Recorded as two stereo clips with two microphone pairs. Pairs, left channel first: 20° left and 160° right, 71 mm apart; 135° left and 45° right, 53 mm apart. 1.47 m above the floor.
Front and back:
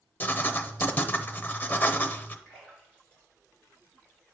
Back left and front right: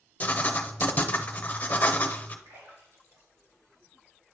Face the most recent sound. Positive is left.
turn(degrees=-45)